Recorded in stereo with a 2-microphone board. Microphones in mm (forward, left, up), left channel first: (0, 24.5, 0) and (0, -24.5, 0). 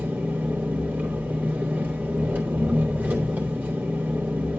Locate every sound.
0.0 s an engine running: 30° right (ahead or behind), 3 m